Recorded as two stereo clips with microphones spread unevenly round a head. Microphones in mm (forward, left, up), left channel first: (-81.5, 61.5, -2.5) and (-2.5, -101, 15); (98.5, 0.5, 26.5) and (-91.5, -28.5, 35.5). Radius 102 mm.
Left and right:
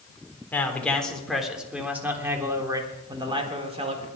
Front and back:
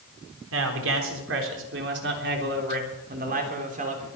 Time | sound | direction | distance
0.5 | a man speaking | 165° right | 3.5 m